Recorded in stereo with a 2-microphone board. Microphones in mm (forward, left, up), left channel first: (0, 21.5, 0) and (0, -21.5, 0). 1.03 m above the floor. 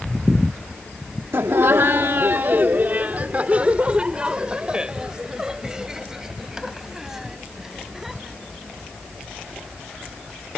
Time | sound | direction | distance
1.3 | laughter | 85° right | ?